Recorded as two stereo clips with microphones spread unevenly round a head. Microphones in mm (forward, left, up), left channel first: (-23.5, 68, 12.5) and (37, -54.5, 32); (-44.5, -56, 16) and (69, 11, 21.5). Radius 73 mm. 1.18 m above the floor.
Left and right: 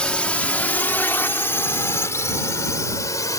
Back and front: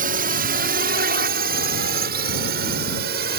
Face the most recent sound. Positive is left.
turn(degrees=50)